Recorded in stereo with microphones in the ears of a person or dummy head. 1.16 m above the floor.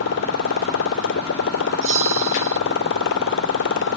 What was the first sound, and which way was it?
A motorcycle, 70° left (ahead or behind).